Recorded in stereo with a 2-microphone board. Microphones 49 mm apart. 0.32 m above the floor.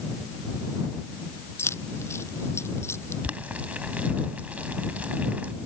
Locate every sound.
1.6 s keys jangling: 60° left (ahead or behind)
3.2 s boiling: 30° right (ahead or behind)